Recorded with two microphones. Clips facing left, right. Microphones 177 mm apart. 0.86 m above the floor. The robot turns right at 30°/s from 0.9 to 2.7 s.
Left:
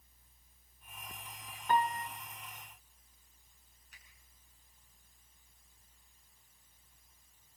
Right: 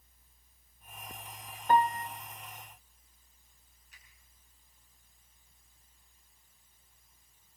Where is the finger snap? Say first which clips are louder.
Even; 60° left (ahead or behind), 7.5 m.